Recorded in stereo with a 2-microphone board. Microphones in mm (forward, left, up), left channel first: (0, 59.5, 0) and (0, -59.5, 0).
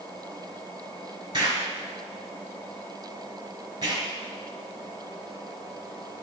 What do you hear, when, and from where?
1.3 s an explosion: 35° right (ahead or behind), 4 m